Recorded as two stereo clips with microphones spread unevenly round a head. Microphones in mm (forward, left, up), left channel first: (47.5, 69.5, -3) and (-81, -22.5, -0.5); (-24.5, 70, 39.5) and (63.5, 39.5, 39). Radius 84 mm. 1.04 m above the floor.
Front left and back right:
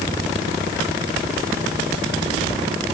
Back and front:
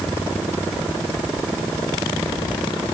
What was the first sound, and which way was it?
Only background noise.